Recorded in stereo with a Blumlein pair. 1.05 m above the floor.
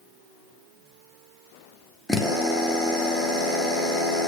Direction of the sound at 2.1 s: 10° left.